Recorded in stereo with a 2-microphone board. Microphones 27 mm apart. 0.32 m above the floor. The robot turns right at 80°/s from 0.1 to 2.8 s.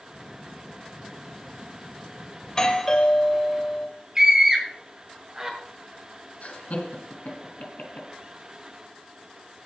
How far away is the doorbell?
About 1.4 m.